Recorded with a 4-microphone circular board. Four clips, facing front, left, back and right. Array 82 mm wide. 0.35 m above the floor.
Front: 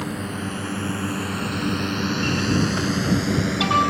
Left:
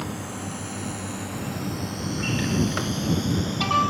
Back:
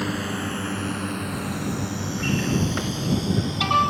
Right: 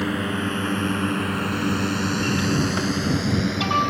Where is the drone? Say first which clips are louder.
Right 8 dB, back 1 dB; 105° right; by 3.9 s 30° right.